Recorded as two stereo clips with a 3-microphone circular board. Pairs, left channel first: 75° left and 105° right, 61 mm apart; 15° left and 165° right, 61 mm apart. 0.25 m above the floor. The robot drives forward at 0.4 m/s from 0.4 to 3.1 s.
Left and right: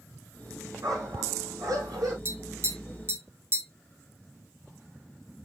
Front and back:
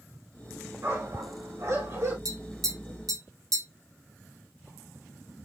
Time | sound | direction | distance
0.8 | a dog barking | 120° right | 4.5 m
2.2 | tapping | 155° right | 3.5 m